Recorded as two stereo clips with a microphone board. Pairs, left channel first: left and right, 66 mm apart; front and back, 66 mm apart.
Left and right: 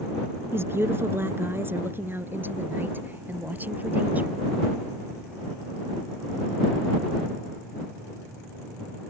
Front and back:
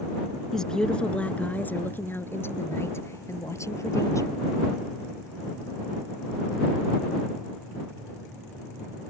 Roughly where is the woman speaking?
Right.